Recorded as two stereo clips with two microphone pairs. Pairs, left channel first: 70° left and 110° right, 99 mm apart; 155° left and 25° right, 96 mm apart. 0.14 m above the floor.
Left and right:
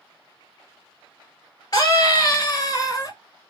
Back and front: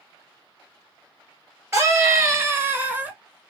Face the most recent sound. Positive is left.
turn(degrees=40)